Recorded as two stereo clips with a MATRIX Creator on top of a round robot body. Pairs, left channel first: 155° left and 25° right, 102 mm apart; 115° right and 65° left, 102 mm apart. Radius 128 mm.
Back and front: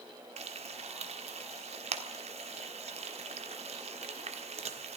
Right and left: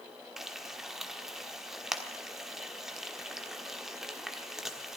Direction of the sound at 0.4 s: 20° right.